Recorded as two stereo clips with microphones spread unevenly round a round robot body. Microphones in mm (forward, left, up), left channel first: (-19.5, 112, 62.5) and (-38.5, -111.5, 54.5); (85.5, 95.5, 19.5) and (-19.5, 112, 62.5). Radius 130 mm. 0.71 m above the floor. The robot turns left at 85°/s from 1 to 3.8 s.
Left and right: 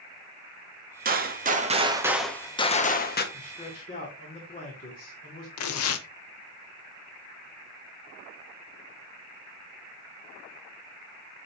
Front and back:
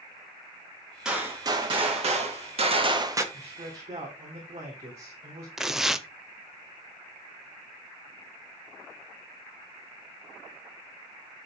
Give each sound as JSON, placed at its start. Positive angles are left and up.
{"t": 1.1, "sound": "a gunshot", "azimuth_deg": -80, "distance_m": 1.2}
{"t": 3.3, "sound": "a man speaking", "azimuth_deg": 175, "distance_m": 2.5}
{"t": 5.6, "sound": "tearing paper", "azimuth_deg": 95, "distance_m": 0.7}